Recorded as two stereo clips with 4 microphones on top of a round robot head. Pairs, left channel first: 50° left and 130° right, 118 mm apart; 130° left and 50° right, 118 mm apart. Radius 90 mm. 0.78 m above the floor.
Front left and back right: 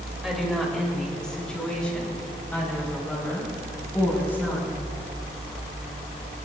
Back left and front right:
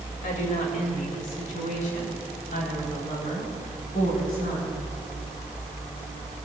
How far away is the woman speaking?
About 3 m.